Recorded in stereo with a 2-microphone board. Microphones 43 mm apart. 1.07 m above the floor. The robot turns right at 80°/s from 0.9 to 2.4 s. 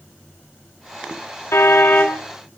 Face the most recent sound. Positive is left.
turn(degrees=165)